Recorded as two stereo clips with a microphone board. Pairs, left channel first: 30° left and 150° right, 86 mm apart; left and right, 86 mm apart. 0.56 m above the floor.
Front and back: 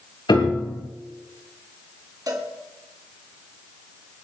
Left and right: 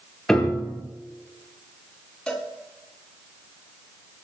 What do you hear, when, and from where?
0.3 s a piano: 10° left, 3.5 m
2.3 s a cowbell: 170° left, 4.5 m